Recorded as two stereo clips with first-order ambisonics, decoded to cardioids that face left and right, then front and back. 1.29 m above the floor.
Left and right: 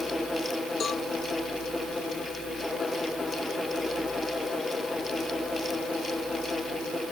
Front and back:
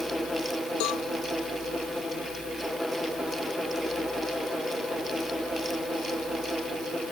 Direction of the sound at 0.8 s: 25° left.